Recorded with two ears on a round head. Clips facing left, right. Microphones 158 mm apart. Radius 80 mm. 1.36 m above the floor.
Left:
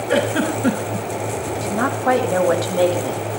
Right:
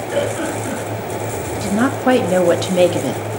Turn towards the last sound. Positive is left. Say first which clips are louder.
# right 6 dB
turn(degrees=-30)  # may be behind; listen again after turning